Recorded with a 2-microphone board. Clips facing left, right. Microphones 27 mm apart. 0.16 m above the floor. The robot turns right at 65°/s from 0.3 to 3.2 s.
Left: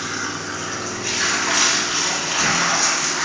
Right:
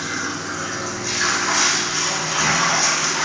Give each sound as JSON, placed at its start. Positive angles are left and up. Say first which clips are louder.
{"t": 0.0, "sound": "running water", "louder": "right 1 dB", "azimuth_deg": 30, "distance_m": 2.5}